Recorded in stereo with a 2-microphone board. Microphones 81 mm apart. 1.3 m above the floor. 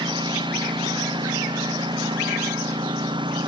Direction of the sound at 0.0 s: 80° right.